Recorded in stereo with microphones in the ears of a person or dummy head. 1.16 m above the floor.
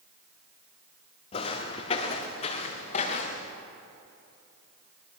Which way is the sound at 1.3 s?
35° left (ahead or behind).